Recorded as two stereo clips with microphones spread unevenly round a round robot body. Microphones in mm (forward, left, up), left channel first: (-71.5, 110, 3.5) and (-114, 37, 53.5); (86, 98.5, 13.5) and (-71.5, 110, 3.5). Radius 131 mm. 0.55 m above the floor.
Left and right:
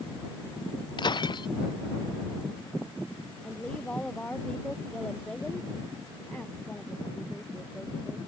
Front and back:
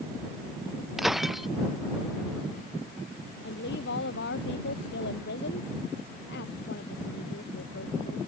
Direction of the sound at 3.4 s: 25° right.